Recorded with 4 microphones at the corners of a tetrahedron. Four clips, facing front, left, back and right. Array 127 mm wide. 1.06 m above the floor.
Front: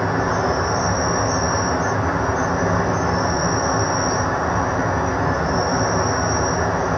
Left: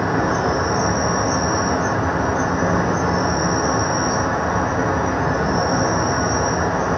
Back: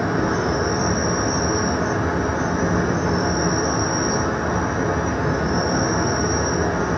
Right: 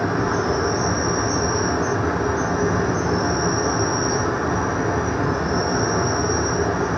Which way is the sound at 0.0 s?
50° left.